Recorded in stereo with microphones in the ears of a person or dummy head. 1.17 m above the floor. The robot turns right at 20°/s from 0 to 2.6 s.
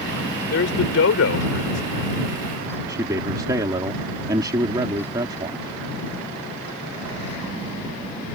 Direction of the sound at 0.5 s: 60° left (ahead or behind).